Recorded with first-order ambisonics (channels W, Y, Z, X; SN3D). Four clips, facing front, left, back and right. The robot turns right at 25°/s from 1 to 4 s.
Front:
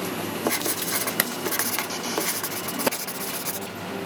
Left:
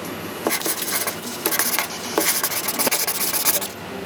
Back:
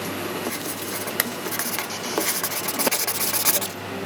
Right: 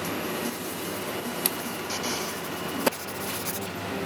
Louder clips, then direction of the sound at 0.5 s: Left 8 dB, front 3 dB; 70° left.